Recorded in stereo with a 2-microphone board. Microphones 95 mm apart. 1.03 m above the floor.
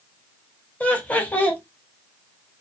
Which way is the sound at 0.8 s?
15° left (ahead or behind).